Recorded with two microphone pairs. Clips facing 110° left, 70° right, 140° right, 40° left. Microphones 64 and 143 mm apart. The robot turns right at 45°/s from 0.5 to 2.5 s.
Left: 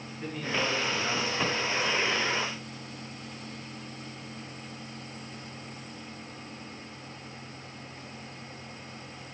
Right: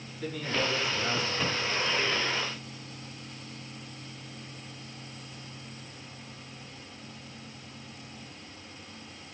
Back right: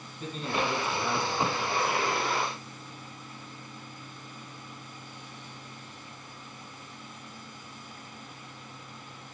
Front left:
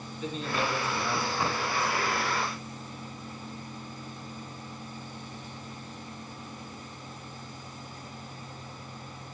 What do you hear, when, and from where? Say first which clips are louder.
0.2 s a man speaking: even, even; 175° left, 3.5 m; by 2.3 s 105° right, 3.5 m